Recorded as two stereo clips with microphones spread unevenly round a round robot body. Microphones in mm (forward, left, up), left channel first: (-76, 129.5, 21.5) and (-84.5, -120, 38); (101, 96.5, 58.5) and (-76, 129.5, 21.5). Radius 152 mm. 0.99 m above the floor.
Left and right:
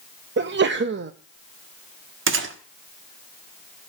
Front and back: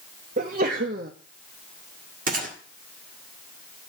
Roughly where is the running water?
No running water in this recording.